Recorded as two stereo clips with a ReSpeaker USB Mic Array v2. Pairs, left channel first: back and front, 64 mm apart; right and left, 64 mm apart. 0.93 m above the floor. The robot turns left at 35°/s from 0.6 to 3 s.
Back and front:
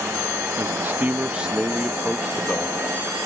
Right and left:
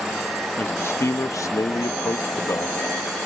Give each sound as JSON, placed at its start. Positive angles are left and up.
{"t": 0.6, "sound": "a man speaking", "azimuth_deg": -40}